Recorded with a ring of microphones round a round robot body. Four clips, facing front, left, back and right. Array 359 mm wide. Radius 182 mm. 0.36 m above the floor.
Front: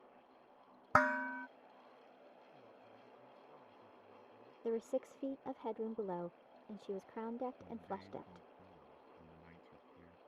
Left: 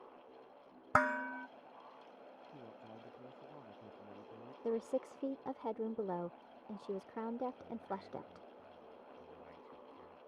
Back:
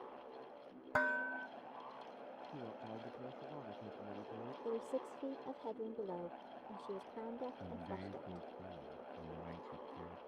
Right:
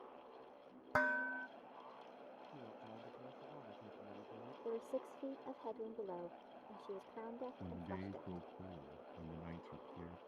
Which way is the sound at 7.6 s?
120° right.